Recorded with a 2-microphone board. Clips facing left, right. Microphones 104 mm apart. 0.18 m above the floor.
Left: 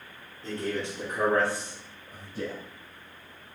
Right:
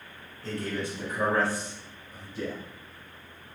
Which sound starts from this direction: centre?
A man speaking, at 0.4 s.